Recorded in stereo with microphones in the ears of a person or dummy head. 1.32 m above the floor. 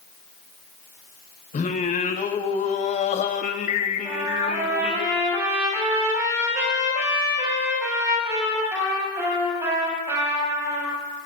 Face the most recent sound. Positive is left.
turn(degrees=-20)  # may be behind; listen again after turning